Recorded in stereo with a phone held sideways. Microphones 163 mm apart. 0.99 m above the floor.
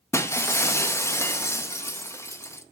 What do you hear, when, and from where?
0.1 s breaking glass: 15° left (ahead or behind), 0.6 m